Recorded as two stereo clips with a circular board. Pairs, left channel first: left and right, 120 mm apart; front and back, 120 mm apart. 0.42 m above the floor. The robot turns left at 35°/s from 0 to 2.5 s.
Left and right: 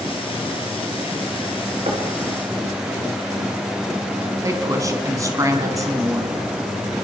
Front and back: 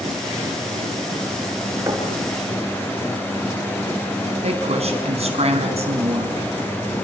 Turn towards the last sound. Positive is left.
turn(degrees=-150)